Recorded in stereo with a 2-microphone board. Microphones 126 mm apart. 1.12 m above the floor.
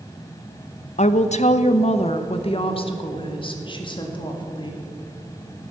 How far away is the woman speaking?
About 0.6 m.